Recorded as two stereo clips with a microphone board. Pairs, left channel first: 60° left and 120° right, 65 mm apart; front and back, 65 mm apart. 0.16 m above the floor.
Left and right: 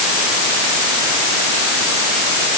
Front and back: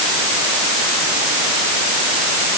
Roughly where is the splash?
I don't hear a splash.